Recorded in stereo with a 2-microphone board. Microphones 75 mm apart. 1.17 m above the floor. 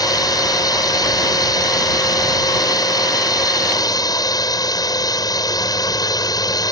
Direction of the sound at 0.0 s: 70° left (ahead or behind).